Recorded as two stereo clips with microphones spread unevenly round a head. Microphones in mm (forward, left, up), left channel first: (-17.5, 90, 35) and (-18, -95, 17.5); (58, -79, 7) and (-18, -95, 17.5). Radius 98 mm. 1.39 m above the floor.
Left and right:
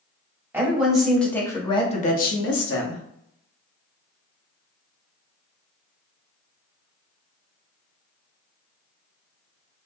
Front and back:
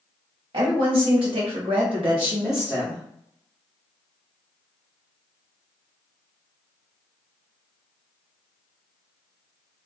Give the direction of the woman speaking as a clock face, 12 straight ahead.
6 o'clock.